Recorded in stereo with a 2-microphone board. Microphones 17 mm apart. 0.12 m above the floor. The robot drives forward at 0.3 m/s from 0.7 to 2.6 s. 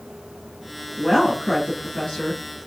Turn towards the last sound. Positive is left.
turn(degrees=40)  # may be behind; listen again after turning